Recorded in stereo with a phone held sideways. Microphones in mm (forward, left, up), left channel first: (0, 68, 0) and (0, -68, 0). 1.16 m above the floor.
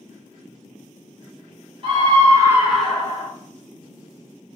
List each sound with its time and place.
1.8 s a scream: 40° right (ahead or behind), 1.0 m; by 3.3 s 30° left (ahead or behind), 0.7 m